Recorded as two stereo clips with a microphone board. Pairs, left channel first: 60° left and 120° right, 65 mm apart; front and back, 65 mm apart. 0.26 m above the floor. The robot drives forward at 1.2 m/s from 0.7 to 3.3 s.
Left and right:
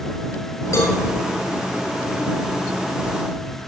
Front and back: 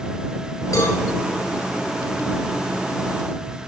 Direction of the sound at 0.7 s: 25° left.